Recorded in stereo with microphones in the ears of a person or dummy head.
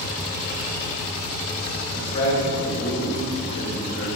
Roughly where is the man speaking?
Left.